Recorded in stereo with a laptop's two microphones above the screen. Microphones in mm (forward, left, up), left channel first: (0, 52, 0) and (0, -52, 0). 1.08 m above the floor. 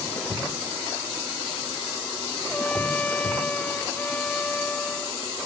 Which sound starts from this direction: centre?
A trumpet, at 2.5 s.